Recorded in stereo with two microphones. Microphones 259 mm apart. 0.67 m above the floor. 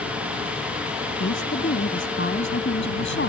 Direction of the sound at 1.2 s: 45° left (ahead or behind).